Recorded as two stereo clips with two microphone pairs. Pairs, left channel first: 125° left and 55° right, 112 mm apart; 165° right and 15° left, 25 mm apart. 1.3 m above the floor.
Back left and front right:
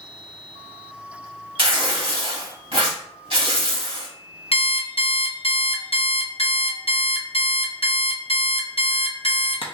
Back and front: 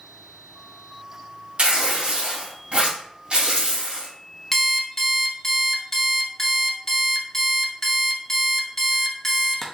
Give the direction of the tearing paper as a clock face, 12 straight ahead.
1 o'clock.